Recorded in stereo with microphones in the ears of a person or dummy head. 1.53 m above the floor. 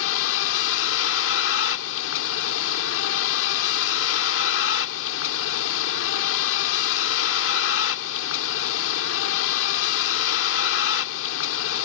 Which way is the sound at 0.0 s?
75° left (ahead or behind).